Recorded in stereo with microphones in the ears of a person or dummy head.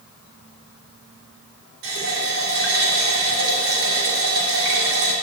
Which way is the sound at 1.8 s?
75° right (ahead or behind).